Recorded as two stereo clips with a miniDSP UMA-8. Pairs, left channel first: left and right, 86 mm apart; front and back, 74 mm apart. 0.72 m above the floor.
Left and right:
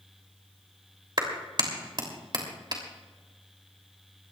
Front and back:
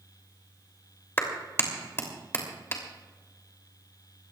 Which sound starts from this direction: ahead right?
A clap, at 1.2 s.